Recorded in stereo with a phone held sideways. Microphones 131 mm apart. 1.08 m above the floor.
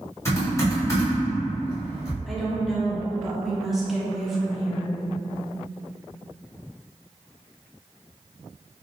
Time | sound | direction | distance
0.2 | typing on a keyboard | 20° left (ahead or behind) | 1.5 m
2.3 | a woman speaking | centre (ahead or behind) | 0.6 m